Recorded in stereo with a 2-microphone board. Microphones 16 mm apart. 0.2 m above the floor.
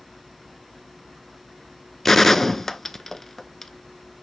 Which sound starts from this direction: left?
A gunshot, at 2.0 s.